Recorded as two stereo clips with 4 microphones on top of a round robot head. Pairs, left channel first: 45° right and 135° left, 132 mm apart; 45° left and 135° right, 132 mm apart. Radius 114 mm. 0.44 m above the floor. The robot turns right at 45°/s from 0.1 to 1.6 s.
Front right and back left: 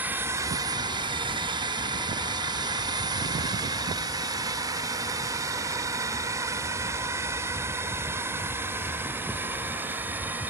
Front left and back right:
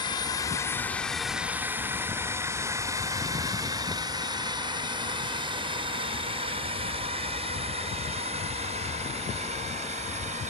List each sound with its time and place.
0.0 s a drone: 70° left; by 10.5 s 150° right